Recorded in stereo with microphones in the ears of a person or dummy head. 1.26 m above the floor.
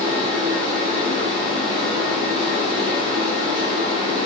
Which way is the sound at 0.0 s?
35° right (ahead or behind).